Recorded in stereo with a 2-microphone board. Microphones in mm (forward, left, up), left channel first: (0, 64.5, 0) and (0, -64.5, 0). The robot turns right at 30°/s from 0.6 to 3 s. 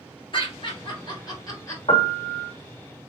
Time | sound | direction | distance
0.3 | laughter | 40° left (ahead or behind) | 1.5 m
1.9 | a piano | 50° left (ahead or behind) | 1.2 m